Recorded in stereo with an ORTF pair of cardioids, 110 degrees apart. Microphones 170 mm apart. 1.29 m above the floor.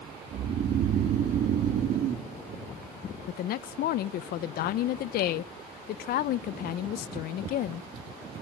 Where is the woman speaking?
65° left, 0.7 m.